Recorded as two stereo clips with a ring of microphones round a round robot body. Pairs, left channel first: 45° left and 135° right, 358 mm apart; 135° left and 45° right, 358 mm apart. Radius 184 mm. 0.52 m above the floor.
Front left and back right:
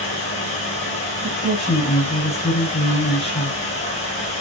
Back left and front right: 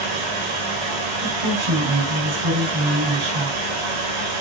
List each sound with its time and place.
0.0 s running water: 30° right, 3.5 m
1.2 s a woman speaking: 30° right, 4.5 m